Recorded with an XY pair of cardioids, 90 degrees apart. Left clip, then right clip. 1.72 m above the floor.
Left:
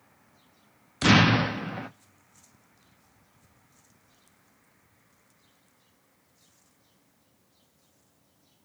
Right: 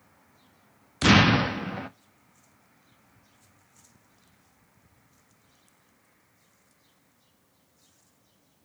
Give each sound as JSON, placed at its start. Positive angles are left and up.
{"t": 1.0, "sound": "an explosion", "azimuth_deg": -10, "distance_m": 0.5}